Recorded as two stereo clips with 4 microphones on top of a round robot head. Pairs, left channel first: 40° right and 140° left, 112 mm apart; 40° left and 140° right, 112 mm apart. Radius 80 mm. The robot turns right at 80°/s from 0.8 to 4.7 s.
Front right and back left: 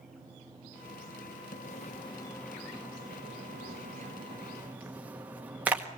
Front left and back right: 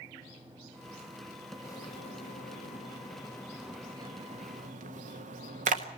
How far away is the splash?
About 1.5 m.